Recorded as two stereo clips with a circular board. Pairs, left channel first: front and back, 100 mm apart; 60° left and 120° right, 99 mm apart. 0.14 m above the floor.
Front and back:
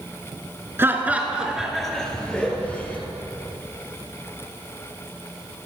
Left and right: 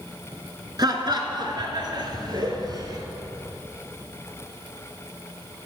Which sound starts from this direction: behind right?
Laughter, at 0.8 s.